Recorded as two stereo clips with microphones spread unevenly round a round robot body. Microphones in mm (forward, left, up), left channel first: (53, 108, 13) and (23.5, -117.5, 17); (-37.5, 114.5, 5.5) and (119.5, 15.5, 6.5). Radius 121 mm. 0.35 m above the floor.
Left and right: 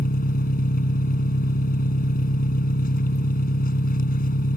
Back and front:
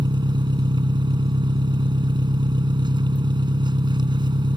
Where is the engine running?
35° left.